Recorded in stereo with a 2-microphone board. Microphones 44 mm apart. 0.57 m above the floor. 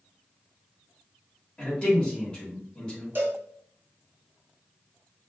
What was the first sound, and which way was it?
A man speaking, 25° left (ahead or behind).